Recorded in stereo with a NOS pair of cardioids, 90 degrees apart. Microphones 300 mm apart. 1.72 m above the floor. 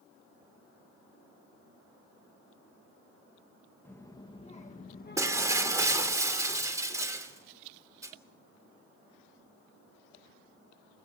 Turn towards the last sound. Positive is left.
turn(degrees=-10)